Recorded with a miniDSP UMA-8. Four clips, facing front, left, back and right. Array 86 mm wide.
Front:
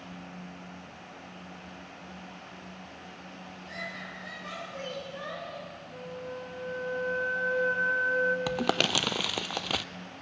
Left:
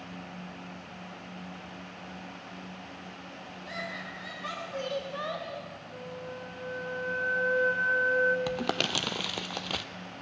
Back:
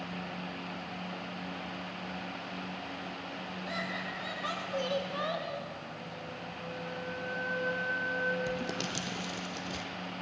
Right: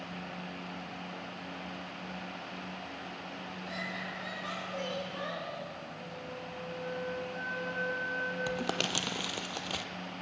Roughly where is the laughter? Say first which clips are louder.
Left 2 dB, back 3 dB; behind.